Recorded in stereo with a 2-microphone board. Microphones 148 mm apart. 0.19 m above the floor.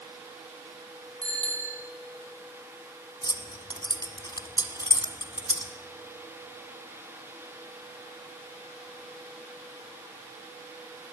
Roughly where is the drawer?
I don't hear a drawer.